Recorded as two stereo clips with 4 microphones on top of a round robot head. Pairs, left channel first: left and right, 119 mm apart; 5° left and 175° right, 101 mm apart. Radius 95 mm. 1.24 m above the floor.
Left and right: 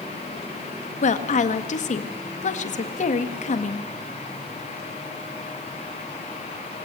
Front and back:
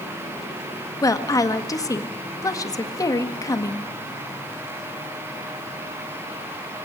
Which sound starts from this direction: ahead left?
A woman speaking, at 1.0 s.